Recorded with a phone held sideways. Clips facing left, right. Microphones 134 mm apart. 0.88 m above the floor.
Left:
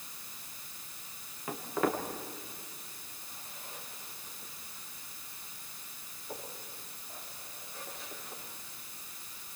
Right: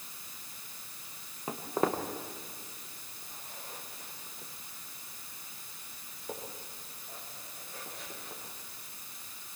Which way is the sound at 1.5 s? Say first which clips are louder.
Right 1 dB; 25° right (ahead or behind).